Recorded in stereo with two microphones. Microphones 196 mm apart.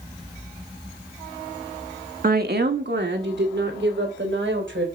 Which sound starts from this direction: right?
A woman speaking, at 2.2 s.